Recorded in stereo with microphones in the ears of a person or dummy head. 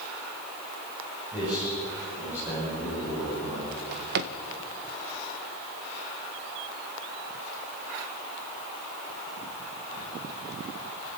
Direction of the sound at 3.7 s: 50° right (ahead or behind).